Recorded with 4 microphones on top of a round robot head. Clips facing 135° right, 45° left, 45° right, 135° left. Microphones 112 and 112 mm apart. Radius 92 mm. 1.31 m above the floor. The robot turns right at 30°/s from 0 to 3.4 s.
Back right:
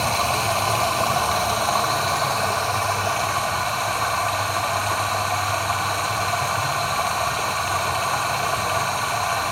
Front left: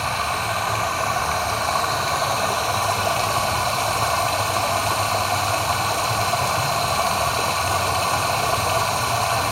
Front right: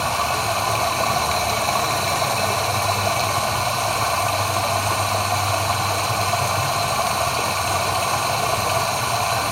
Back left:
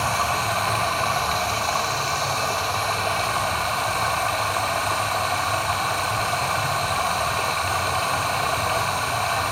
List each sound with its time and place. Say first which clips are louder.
0.0 s running water: back right 2 dB, front right 1 dB; 105° right, 0.9 m; by 9.5 s 5° right, 0.9 m